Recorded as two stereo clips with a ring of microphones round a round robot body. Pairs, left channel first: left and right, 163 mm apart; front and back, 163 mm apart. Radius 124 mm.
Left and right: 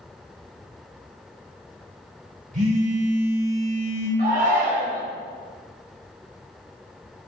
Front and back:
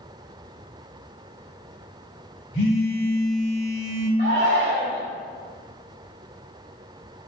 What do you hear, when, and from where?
2.5 s a phone buzzing: 55° right, 2 m
4.2 s a shout: 125° right, 1.8 m